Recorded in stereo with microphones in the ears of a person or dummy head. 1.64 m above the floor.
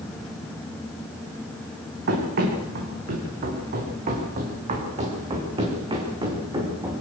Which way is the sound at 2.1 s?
55° right (ahead or behind).